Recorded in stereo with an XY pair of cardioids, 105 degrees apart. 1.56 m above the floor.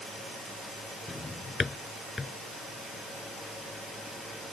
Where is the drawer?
25° left.